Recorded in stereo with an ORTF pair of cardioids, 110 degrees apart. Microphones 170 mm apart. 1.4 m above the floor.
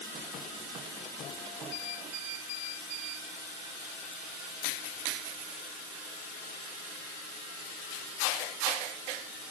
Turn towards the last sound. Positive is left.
No sound to turn to.